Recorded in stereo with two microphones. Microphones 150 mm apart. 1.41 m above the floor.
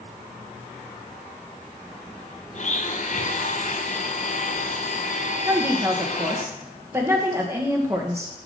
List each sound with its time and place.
2.5 s a blender: 55° left (ahead or behind), 0.6 m
5.5 s a woman speaking: 20° right (ahead or behind), 1.4 m